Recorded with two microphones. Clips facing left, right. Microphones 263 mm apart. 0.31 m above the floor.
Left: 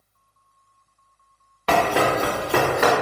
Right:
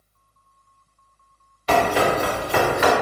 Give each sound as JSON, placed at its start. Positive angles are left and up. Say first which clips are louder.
{"t": 1.7, "sound": "running footsteps", "louder": "right 1 dB", "side_deg": 75, "distance_m": 1.6}